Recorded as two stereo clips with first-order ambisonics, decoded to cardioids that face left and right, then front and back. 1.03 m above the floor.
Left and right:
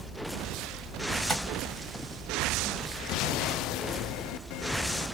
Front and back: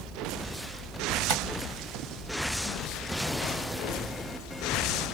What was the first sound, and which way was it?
Tapping, 170° right.